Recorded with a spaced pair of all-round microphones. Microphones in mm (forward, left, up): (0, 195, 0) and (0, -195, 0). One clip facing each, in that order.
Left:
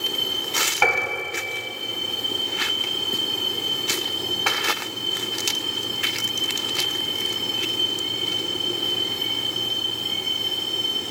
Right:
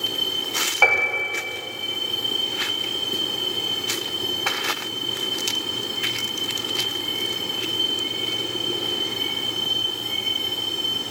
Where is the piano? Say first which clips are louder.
Even; 30° left (ahead or behind), 1.1 m.